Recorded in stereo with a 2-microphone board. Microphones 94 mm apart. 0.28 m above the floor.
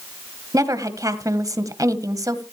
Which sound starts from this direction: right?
A woman speaking, at 0.5 s.